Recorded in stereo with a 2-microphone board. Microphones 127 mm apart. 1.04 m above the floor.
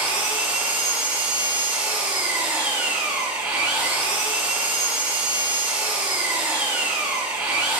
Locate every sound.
0.0 s an engine running: 15° right (ahead or behind), 2.5 m